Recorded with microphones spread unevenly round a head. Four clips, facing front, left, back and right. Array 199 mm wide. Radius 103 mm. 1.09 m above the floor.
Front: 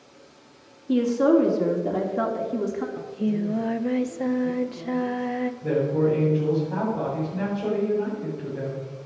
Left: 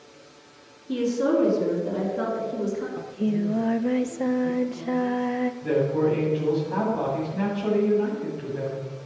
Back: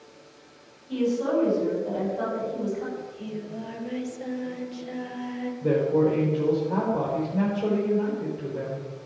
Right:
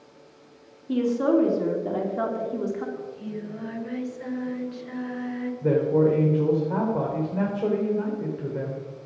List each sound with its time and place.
0.9 s a woman speaking: 15° right, 2.5 m
3.0 s singing: 55° left, 0.7 m
5.6 s a man speaking: 115° right, 3.5 m